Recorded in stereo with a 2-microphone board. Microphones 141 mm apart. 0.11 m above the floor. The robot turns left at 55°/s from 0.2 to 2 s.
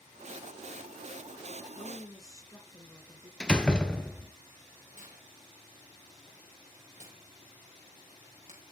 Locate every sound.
1.8 s a woman speaking: 20° left (ahead or behind), 1.7 m; by 3.3 s 25° left (ahead or behind), 1.7 m
3.4 s a door slam: 5° left (ahead or behind), 1.1 m
4.9 s tearing paper: 60° right (ahead or behind), 5 m